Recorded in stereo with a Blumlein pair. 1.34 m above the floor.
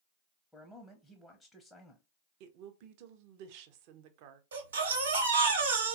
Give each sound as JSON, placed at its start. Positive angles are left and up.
{"t": 0.5, "sound": "a man speaking", "azimuth_deg": 5, "distance_m": 0.6}
{"t": 2.4, "sound": "a woman speaking", "azimuth_deg": -45, "distance_m": 0.6}
{"t": 4.5, "sound": "a baby crying", "azimuth_deg": -70, "distance_m": 1.1}